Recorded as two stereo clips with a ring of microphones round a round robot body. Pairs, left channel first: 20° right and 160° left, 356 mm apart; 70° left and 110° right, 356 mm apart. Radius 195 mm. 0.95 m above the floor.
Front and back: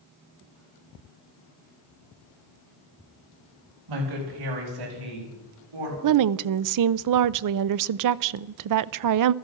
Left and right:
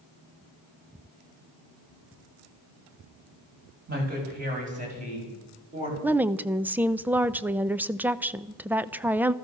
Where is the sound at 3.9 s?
175° right, 6 m; by 5.9 s 170° left, 7 m.